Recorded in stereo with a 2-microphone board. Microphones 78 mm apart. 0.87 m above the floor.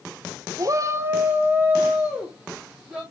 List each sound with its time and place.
0.6 s a shout: 50° right (ahead or behind), 0.6 m; by 3.0 s 10° right (ahead or behind), 2.5 m